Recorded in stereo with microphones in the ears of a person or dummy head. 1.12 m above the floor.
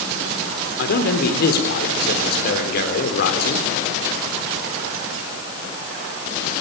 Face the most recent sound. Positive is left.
turn(degrees=45)  # may be behind; listen again after turning